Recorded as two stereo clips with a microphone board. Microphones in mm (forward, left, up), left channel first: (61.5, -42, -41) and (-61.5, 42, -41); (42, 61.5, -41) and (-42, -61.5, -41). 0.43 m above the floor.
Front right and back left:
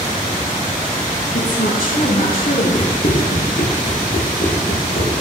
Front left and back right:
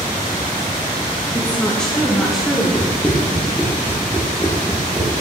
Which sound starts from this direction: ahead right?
Running footsteps, at 2.8 s.